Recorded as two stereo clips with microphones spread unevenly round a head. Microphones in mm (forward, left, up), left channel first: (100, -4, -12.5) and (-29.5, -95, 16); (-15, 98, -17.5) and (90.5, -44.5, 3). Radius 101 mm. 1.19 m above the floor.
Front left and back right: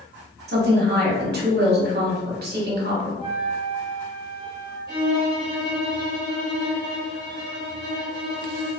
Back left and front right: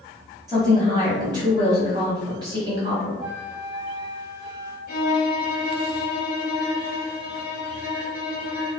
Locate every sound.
0.5 s a woman speaking: 125° right, 1.1 m
3.2 s a flute: 20° right, 1.6 m
4.9 s a violin: 170° left, 1.0 m